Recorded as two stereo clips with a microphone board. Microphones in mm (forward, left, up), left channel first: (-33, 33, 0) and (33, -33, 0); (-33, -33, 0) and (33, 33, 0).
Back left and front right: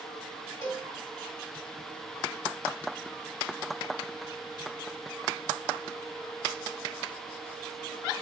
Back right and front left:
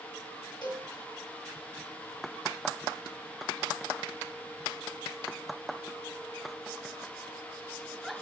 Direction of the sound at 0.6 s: 170° right.